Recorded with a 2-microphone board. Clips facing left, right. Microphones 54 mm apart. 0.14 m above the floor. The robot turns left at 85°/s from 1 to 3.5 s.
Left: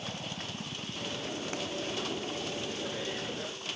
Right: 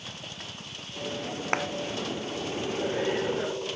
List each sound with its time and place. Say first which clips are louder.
0.0 s a helicopter: left 2 dB; 110° left; by 3.8 s 105° right
1.5 s a clap: right 12 dB; 60° right (ahead or behind); by 1.7 s 70° right (ahead or behind)